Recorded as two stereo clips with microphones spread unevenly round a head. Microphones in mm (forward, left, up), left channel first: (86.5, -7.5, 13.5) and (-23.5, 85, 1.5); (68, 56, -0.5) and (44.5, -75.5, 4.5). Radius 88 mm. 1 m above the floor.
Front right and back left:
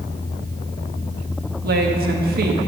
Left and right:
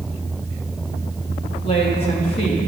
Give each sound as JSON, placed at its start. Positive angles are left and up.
{"t": 1.6, "sound": "a woman speaking", "azimuth_deg": 140, "distance_m": 1.3}